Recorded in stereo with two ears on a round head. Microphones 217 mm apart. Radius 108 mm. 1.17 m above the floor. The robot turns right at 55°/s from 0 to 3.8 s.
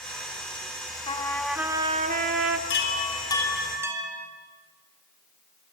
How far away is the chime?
About 8 m.